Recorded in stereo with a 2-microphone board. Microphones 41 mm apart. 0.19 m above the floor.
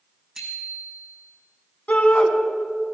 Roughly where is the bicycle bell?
Right.